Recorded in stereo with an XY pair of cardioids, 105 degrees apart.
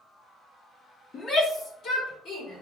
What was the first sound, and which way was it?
A shout, 55° left.